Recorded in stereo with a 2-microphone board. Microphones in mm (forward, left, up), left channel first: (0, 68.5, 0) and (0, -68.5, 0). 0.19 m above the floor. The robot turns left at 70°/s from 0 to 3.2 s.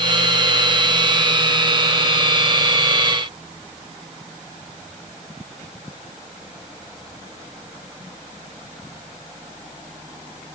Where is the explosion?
I don't hear an explosion.